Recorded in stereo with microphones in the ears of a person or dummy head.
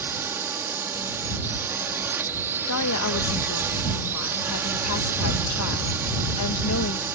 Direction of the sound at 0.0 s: 10° right (ahead or behind).